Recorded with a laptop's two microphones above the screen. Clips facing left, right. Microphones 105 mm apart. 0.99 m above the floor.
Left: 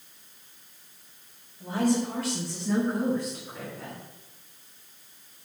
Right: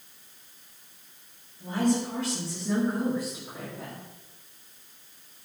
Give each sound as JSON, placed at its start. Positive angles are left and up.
{"t": 1.6, "sound": "a woman speaking", "side_deg": 10, "distance_m": 2.5}